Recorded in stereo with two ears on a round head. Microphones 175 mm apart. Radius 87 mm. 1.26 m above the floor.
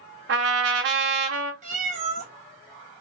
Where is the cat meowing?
40° right (ahead or behind), 0.9 m.